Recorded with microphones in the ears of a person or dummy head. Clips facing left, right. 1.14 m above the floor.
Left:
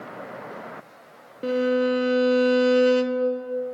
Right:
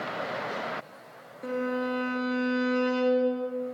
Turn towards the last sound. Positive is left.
turn(degrees=40)  # may be behind; listen again after turning